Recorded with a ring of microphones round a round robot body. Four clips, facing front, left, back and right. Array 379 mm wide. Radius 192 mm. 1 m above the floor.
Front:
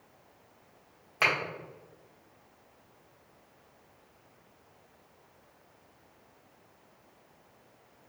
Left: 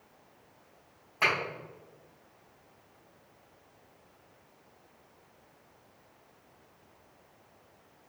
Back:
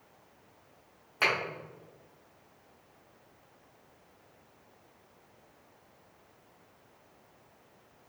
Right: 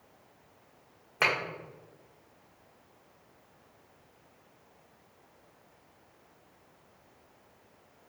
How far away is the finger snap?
About 1.9 m.